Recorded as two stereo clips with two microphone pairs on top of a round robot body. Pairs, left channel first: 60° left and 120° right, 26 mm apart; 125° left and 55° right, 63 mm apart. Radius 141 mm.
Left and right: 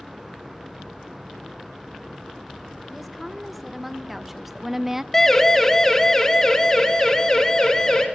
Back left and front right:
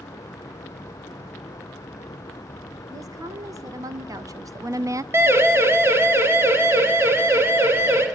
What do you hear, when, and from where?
2.9 s a woman speaking: 35° right, 3 m; by 5.0 s 45° right, 0.9 m
5.1 s a siren: 15° right, 3 m; by 8.1 s 10° right, 4.5 m